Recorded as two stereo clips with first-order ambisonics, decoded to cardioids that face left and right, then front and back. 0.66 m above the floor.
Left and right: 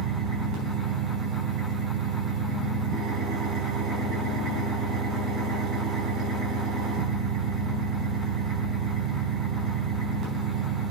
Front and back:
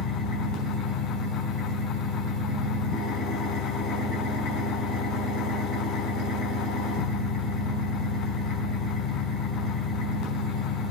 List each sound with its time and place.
0.0 s an engine running: 40° right, 5 m